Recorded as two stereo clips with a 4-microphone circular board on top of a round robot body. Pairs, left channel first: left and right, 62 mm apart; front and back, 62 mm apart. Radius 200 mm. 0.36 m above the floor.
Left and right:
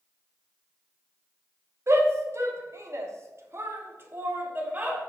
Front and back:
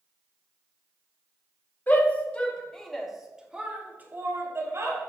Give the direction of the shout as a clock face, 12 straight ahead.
2 o'clock.